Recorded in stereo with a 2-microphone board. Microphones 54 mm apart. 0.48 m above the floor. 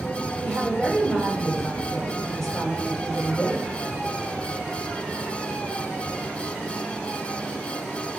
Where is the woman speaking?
5° left (ahead or behind), 3 m.